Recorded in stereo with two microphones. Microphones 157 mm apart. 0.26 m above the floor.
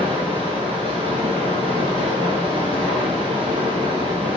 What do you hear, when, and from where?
0.0 s running water: 40° right (ahead or behind), 5.5 m